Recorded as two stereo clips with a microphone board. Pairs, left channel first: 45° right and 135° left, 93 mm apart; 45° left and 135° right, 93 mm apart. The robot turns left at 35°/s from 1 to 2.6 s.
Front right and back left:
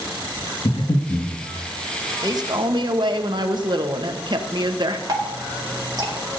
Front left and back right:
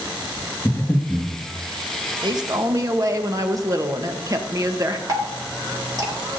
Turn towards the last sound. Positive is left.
turn(degrees=180)